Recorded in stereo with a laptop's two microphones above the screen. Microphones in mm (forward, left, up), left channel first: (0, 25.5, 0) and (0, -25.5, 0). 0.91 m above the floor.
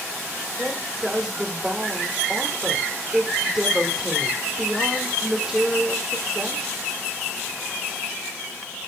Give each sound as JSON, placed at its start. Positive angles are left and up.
{"t": 0.6, "sound": "a woman speaking", "side_deg": -10, "distance_m": 2.0}